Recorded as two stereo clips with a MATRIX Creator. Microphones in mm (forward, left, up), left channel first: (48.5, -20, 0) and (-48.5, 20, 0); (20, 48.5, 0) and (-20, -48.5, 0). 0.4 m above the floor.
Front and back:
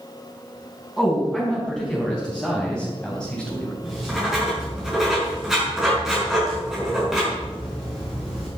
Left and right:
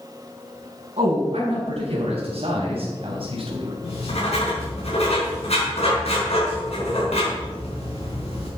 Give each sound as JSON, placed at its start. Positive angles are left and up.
{"t": 1.0, "sound": "a man speaking", "azimuth_deg": -105, "distance_m": 4.5}
{"t": 3.8, "sound": "writing", "azimuth_deg": 70, "distance_m": 5.5}